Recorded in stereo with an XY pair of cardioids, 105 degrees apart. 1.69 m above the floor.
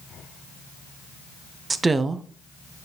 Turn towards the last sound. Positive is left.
turn(degrees=-25)